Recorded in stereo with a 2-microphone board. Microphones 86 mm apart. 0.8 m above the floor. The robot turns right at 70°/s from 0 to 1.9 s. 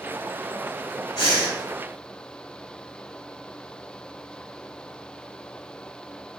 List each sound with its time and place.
1.2 s breathing: 60° left (ahead or behind), 1.2 m; by 1.6 s 85° left, 1.2 m